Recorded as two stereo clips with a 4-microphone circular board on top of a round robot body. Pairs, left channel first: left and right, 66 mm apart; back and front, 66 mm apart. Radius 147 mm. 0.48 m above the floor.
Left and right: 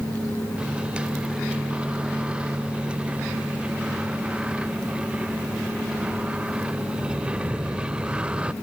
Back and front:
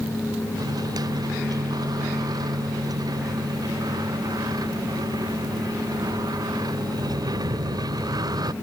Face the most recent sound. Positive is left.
turn(degrees=-15)